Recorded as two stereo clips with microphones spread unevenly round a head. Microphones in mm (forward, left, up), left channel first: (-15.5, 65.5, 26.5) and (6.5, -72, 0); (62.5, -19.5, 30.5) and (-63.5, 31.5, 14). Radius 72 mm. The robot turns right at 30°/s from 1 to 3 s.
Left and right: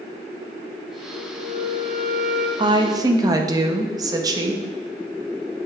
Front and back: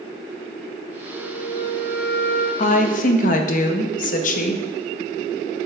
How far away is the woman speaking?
About 0.7 m.